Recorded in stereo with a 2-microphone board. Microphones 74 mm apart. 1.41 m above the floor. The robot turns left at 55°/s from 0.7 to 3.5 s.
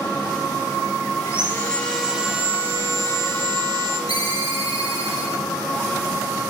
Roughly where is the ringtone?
Left.